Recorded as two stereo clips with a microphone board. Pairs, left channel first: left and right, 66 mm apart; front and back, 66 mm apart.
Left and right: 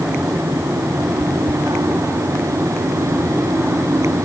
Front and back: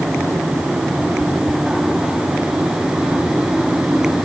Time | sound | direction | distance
1.2 | chewing | 165° left | 2 m